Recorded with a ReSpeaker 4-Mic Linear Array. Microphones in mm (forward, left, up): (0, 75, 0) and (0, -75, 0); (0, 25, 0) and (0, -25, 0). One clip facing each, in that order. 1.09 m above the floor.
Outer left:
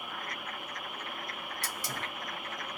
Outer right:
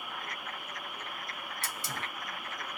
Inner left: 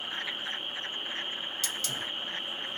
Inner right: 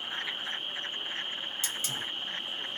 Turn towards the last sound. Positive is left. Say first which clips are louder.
# even, even
turn(degrees=-25)  # may be behind; listen again after turning